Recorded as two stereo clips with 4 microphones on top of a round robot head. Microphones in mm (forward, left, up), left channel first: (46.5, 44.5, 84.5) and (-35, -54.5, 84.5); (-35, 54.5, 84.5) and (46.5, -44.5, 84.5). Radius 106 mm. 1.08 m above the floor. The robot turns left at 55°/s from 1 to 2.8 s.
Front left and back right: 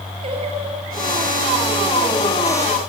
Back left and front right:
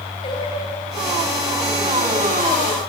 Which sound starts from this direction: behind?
Singing, at 0.2 s.